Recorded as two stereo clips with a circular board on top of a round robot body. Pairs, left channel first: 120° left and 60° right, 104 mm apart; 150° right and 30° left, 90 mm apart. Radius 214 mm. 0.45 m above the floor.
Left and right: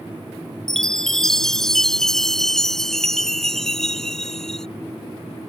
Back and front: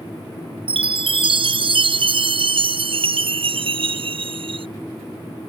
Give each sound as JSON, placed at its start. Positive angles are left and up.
{"t": 0.7, "sound": "a chime", "azimuth_deg": 35}